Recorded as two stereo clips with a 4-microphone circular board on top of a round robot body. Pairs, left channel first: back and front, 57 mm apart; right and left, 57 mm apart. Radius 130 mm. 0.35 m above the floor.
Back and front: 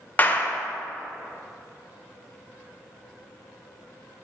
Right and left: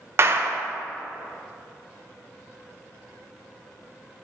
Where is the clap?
125° left, 1.3 m.